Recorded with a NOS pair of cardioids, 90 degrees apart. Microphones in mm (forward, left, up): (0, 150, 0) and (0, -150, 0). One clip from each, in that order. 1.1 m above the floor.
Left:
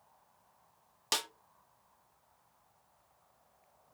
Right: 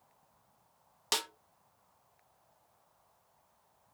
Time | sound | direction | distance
1.1 | a snare drum | 5° right | 0.6 m